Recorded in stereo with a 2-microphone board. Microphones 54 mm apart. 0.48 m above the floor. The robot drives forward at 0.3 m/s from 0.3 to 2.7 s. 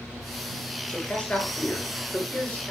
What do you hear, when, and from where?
0.9 s a man speaking: 20° left (ahead or behind), 9 m